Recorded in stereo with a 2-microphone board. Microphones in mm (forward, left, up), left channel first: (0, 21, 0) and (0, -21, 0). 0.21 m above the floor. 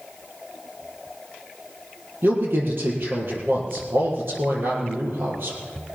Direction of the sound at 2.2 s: 60° right (ahead or behind).